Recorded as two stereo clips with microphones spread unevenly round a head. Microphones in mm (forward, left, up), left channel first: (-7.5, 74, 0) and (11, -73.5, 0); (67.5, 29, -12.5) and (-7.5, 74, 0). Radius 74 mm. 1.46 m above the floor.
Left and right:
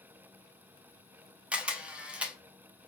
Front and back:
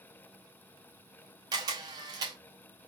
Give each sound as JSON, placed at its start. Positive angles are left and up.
{"t": 1.5, "sound": "a camera shutter", "azimuth_deg": -165, "distance_m": 0.5}